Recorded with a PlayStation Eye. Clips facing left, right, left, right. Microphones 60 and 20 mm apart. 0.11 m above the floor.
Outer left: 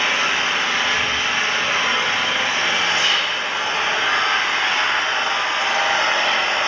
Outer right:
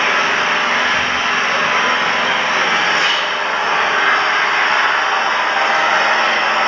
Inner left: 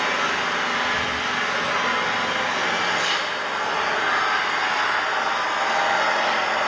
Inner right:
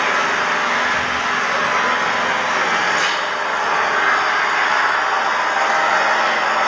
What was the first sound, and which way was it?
An engine running, 45° right (ahead or behind).